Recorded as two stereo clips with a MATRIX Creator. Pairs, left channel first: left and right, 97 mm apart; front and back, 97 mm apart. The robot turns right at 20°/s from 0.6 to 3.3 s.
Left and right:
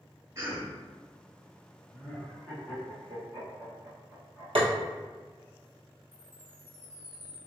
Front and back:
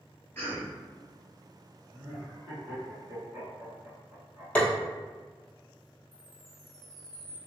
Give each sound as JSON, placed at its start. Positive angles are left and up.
{"t": 0.3, "sound": "a cough", "azimuth_deg": -55, "distance_m": 1.6}
{"t": 1.9, "sound": "laughter", "azimuth_deg": 135, "distance_m": 1.0}
{"t": 4.5, "sound": "tapping", "azimuth_deg": -75, "distance_m": 0.8}
{"t": 6.1, "sound": "a chime", "azimuth_deg": 145, "distance_m": 1.1}